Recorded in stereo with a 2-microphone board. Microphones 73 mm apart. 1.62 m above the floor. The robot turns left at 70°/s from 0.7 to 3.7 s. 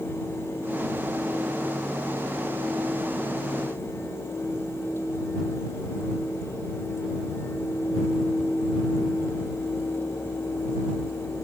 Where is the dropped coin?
No dropped coin in this recording.